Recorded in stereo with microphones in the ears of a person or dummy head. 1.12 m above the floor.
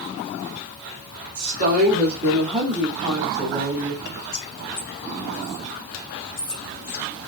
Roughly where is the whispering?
Left.